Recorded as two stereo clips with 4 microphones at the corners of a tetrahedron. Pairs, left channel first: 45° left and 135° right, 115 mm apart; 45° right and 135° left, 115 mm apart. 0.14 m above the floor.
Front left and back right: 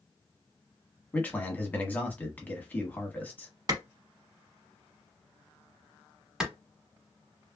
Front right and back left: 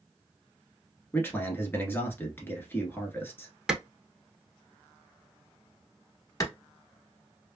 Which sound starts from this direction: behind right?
A clap, at 3.7 s.